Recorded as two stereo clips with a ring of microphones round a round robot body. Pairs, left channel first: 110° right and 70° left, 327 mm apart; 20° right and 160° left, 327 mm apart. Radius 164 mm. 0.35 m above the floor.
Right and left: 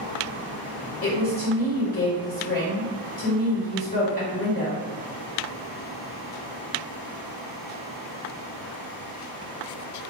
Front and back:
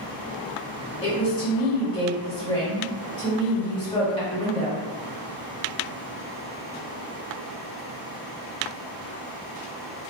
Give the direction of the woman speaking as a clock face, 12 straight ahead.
3 o'clock.